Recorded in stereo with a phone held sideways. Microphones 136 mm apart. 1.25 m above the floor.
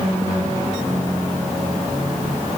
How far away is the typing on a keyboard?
No typing on a keyboard in this recording.